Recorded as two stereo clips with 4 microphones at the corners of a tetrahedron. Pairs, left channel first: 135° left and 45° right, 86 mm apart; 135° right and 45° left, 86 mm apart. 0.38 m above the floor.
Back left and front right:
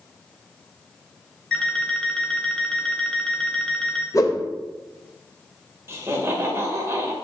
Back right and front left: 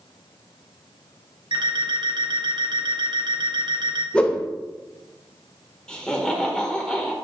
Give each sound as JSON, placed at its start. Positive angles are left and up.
{"t": 1.5, "sound": "an alarm clock", "azimuth_deg": 55, "distance_m": 0.7}
{"t": 4.1, "sound": "a whoosh", "azimuth_deg": 150, "distance_m": 0.5}
{"t": 5.9, "sound": "laughter", "azimuth_deg": -65, "distance_m": 0.9}